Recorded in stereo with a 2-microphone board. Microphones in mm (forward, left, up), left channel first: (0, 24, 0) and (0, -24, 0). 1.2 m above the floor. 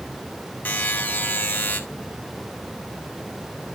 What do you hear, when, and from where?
0.7 s a buzzer: 35° left (ahead or behind), 1.6 m